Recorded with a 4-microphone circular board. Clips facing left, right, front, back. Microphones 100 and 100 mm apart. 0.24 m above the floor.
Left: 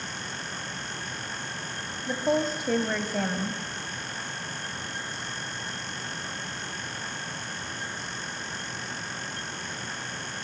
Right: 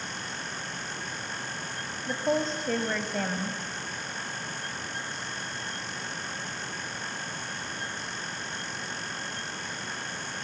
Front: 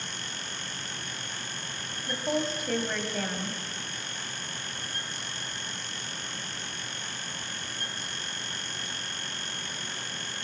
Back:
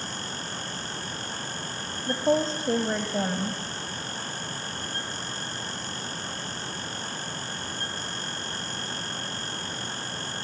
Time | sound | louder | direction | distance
2.1 | a woman speaking | left 2 dB, back 6 dB | 170° left | 1.6 m